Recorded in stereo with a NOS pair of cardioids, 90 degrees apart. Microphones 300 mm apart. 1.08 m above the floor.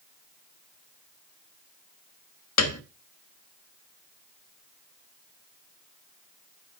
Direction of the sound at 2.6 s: 60° left.